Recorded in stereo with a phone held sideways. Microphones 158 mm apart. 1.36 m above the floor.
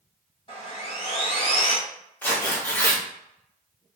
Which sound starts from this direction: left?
Sawing, at 0.5 s.